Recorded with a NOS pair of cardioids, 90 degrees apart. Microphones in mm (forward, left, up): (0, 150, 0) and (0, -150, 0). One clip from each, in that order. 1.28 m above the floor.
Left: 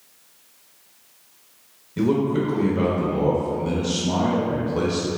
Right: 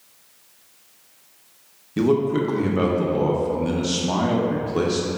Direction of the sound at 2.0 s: 25° right.